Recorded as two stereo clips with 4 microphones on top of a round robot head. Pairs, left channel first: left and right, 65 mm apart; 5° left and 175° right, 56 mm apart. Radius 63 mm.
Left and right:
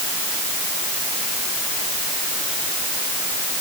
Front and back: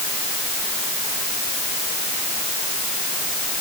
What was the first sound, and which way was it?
Only background noise.